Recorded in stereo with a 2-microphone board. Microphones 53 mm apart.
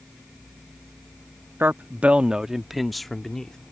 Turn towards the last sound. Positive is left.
turn(degrees=10)  # may be behind; listen again after turning